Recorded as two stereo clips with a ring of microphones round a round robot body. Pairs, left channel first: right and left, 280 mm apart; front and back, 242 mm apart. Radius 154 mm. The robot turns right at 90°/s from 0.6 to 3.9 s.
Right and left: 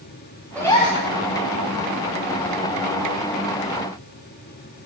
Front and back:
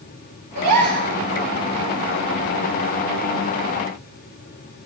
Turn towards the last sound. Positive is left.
turn(degrees=120)